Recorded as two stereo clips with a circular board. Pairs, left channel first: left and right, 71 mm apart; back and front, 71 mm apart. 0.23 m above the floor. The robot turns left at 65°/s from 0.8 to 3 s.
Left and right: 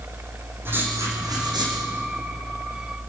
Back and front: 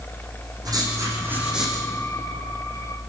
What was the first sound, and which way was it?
Writing, 30° right.